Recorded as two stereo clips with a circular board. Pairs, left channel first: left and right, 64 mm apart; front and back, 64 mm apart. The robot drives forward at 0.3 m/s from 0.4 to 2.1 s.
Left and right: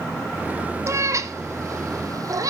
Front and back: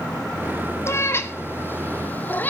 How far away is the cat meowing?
About 1.4 m.